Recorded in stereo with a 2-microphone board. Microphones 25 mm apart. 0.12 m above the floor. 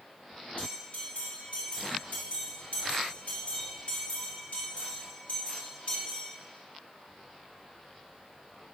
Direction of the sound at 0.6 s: 60° left (ahead or behind).